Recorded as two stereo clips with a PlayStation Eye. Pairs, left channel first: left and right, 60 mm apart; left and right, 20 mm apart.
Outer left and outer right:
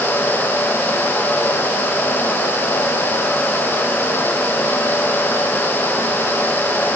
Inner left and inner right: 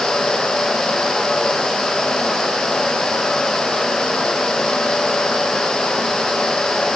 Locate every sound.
Only background noise.